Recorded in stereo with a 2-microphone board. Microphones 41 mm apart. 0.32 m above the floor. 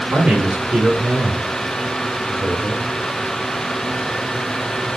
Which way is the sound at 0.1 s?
40° right (ahead or behind).